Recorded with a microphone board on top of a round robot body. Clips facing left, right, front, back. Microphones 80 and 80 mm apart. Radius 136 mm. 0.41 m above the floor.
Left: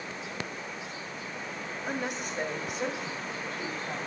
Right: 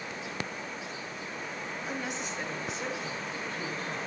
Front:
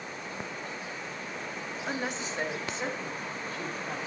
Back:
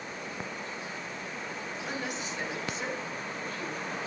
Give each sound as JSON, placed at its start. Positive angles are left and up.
{"t": 1.9, "sound": "a woman speaking", "azimuth_deg": 50, "distance_m": 2.0}